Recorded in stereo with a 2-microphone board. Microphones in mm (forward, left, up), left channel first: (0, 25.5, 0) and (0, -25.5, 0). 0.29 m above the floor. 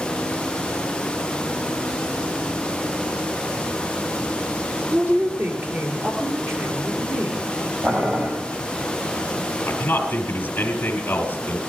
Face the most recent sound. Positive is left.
turn(degrees=45)  # may be behind; listen again after turning